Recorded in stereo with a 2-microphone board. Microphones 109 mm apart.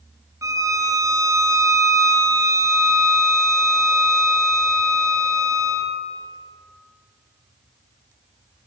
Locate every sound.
0.4 s a violin: 30° right (ahead or behind), 2.5 m